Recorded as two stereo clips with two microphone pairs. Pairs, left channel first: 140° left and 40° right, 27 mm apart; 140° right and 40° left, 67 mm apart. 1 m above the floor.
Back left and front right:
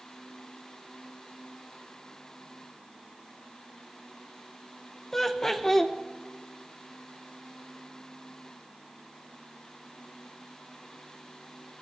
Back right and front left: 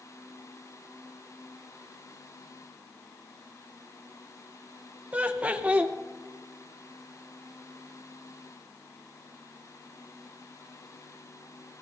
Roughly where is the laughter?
Left.